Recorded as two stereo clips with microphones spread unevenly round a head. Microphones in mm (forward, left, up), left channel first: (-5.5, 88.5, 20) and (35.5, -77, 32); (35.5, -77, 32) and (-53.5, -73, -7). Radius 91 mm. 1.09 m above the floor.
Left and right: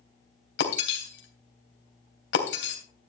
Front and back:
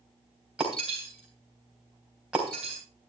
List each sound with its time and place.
0.6 s breaking glass: 90° left, 3 m